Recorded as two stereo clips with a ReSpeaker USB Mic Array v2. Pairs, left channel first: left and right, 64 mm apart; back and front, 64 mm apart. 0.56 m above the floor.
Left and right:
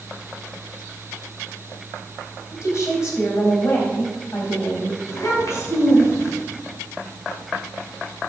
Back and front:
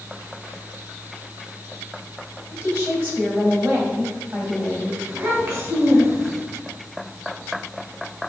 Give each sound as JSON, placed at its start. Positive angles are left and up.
{"t": 2.5, "sound": "a woman speaking", "azimuth_deg": 50, "distance_m": 3.0}
{"t": 5.1, "sound": "a child speaking", "azimuth_deg": 45, "distance_m": 3.5}